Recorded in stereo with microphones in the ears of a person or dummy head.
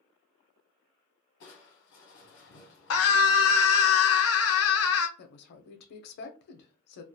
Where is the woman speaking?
55° left (ahead or behind), 0.6 m.